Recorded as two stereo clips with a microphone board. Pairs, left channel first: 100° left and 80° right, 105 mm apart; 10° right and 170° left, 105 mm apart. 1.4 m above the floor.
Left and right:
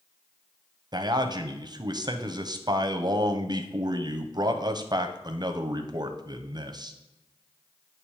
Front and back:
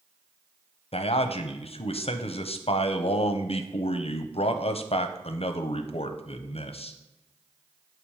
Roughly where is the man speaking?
Ahead right.